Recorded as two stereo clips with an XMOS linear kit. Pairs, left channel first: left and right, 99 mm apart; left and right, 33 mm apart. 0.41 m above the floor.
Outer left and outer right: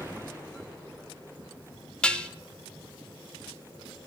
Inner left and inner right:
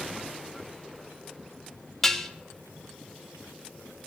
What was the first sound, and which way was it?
Dishes clattering, 10° left (ahead or behind).